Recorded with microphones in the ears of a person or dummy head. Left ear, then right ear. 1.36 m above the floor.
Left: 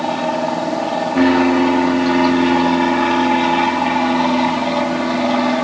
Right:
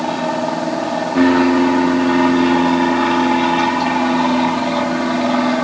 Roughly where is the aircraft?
Centre.